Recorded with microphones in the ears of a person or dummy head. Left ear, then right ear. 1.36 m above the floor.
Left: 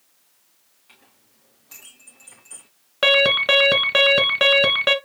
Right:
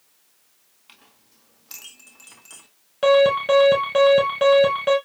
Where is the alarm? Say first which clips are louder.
Even; 45° left (ahead or behind), 1.6 m.